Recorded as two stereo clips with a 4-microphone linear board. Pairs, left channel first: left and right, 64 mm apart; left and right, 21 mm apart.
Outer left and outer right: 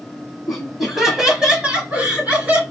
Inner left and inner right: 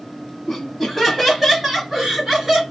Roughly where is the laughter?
Centre.